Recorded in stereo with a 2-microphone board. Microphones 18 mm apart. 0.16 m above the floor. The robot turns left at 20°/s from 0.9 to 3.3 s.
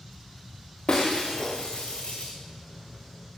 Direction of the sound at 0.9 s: 55° left (ahead or behind).